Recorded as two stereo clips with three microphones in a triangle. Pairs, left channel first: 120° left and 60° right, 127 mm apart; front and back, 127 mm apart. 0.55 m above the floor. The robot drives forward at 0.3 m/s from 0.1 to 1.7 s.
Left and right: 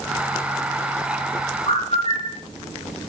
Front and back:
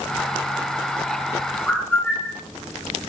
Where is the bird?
75° left, 3 m.